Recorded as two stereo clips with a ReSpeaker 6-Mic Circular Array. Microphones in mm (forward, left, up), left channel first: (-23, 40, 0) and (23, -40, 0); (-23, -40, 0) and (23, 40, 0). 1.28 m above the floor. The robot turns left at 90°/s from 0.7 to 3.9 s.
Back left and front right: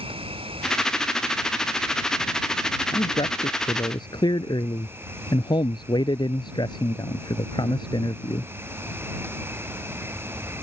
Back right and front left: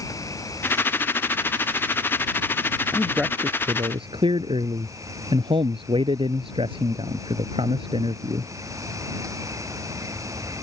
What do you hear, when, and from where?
0.0 s an insect: 65° right; by 10.6 s 5° left
2.9 s a man speaking: 170° left; by 8.5 s 85° left